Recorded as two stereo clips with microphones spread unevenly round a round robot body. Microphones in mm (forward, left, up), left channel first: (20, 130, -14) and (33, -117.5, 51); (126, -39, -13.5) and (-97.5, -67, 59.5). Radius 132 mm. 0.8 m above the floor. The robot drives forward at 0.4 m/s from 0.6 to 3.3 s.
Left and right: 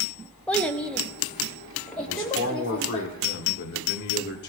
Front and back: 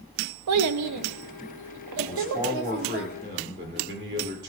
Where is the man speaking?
120° left, 2.0 m; by 4.5 s 135° left, 2 m.